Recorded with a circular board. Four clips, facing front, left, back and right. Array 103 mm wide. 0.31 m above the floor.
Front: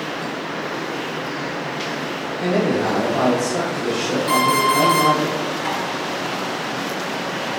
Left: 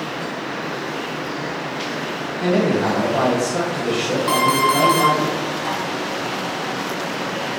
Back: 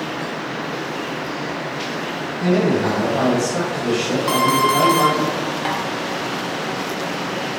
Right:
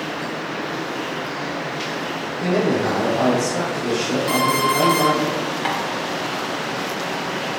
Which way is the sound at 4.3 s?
140° left.